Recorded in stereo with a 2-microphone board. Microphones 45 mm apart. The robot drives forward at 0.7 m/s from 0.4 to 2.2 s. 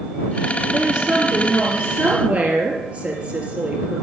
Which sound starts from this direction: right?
A woman speaking, at 0.7 s.